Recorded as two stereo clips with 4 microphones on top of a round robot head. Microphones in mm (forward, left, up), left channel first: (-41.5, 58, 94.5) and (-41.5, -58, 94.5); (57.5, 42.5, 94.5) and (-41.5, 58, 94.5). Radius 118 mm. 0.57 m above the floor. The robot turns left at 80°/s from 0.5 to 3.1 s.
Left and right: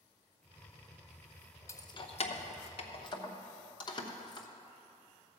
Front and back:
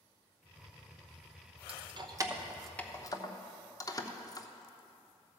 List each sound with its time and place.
1.7 s keys jangling: 155° left, 1.0 m; by 4.5 s 45° left, 1.0 m